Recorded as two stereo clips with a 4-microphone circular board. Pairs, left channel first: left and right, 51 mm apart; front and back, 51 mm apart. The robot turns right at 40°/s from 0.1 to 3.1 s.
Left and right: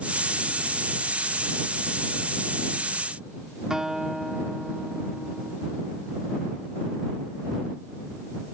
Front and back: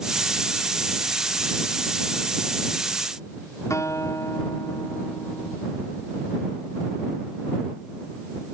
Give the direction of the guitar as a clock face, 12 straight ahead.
12 o'clock.